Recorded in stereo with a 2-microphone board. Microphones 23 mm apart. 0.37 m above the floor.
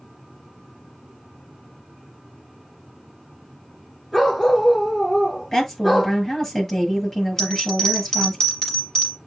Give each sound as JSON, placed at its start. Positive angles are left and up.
{"t": 4.1, "sound": "a dog barking", "side_deg": 0, "distance_m": 6.0}
{"t": 5.5, "sound": "a woman speaking", "side_deg": 10, "distance_m": 8.0}
{"t": 7.4, "sound": "a bell", "side_deg": 20, "distance_m": 5.0}